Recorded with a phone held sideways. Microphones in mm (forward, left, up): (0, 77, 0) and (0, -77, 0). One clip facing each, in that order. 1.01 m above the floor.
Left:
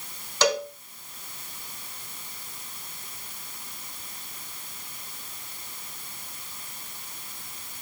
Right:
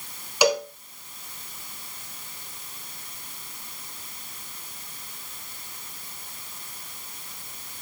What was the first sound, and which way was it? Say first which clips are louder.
A cowbell: right 3 dB; 10° right (ahead or behind).